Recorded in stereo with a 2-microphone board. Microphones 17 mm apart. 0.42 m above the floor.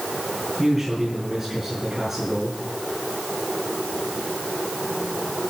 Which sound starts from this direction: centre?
A man speaking, at 0.6 s.